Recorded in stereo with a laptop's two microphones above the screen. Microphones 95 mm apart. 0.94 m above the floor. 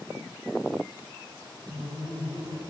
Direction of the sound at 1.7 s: 65° right (ahead or behind).